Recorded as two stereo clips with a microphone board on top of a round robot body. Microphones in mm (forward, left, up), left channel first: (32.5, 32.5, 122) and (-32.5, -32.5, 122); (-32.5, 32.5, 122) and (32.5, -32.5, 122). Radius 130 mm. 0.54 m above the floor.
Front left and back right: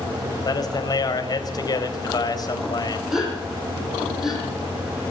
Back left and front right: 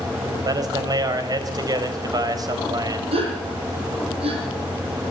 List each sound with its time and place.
0.4 s a man speaking: straight ahead, 4 m
3.1 s a gasp: 50° right, 9.5 m